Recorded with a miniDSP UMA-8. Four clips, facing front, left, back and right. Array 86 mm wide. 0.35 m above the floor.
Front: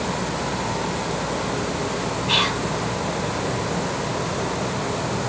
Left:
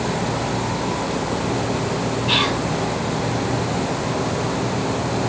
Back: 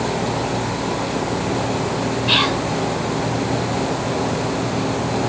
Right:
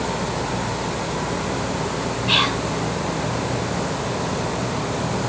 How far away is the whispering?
About 1.4 m.